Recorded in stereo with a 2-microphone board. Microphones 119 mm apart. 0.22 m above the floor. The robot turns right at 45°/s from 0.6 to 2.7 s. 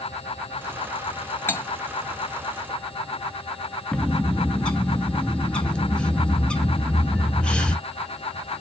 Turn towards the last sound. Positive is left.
turn(degrees=10)  # may be behind; listen again after turning